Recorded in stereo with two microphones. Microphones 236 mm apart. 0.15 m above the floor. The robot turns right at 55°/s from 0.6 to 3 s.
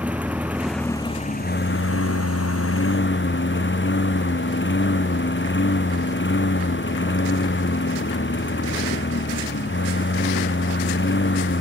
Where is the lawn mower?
5° right; by 11.6 s 125° left.